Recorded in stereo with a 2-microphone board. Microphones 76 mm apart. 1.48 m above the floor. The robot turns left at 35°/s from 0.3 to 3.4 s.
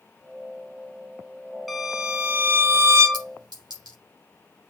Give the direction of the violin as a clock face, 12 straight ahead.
12 o'clock.